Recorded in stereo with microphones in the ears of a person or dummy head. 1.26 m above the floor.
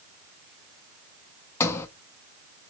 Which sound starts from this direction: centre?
A sliding door, at 1.6 s.